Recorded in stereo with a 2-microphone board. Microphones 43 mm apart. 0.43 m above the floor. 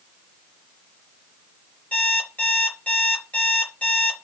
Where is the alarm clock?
30° left (ahead or behind), 4 m.